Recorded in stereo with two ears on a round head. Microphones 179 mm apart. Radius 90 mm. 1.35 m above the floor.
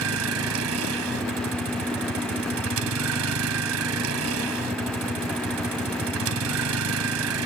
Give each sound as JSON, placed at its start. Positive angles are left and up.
{"t": 0.0, "sound": "a vehicle", "side_deg": -75}